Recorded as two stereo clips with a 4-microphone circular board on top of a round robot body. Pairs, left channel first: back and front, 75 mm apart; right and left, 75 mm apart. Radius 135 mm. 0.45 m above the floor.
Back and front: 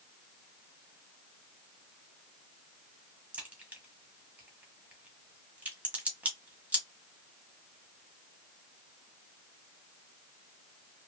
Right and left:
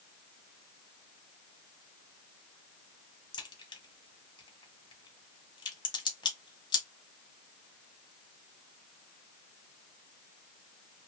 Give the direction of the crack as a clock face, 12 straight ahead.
2 o'clock.